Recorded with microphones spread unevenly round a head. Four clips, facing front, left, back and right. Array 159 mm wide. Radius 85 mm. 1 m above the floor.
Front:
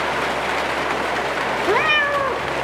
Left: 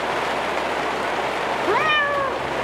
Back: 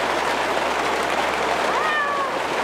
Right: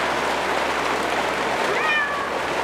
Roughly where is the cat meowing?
Ahead left.